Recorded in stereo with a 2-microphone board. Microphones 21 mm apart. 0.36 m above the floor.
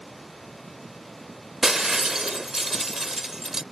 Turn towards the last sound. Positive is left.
turn(degrees=-20)  # may be behind; listen again after turning